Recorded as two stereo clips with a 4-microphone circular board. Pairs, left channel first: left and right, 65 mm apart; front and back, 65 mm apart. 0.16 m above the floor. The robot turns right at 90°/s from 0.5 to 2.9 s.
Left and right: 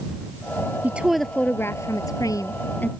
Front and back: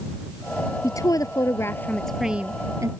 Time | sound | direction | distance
0.8 | a woman speaking | 30° right | ?